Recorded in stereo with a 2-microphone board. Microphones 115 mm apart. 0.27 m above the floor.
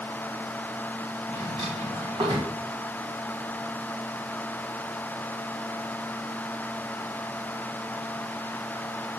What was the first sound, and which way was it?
A drawer, 50° right (ahead or behind).